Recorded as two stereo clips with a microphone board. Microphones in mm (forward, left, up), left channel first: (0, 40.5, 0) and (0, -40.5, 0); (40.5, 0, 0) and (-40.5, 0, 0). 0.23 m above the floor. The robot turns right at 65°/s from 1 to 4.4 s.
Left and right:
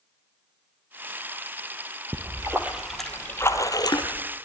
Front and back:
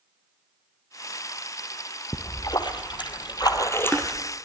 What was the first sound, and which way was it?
A splash, 50° right.